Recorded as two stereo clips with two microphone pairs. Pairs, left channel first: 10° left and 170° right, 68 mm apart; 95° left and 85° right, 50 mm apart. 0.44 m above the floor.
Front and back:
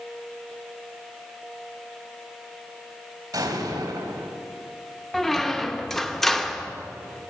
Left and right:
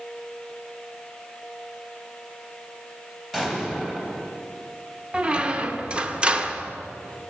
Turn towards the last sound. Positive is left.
turn(degrees=-65)